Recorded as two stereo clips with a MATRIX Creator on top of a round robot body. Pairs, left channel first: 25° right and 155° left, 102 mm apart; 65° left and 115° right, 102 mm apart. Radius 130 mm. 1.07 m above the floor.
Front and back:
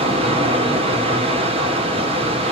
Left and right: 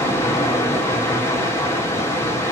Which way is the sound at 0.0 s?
130° left.